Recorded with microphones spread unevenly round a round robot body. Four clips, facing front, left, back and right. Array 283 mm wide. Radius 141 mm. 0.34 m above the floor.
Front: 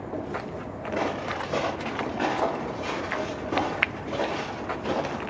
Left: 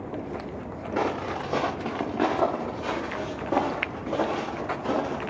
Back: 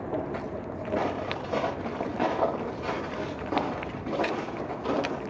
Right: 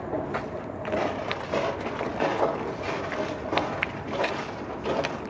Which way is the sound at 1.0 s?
90° left.